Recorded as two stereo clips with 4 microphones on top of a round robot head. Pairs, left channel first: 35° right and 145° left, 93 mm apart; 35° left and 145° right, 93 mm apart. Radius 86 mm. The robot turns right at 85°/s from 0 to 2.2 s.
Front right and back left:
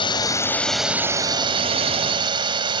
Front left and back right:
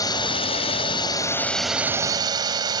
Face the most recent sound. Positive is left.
turn(degrees=175)